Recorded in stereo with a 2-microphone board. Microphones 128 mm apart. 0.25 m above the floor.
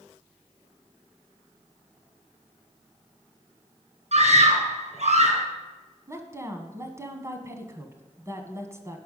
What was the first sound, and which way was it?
A scream, 60° right (ahead or behind).